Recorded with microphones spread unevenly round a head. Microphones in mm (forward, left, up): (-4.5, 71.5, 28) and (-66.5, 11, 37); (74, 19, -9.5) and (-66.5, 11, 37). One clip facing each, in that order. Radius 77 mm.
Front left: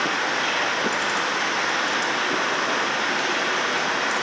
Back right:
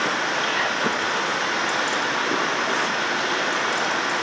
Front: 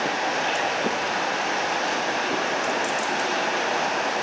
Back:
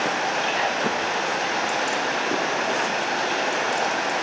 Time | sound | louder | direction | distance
0.0 | running water | even, back 1 dB | 175° left | 3 m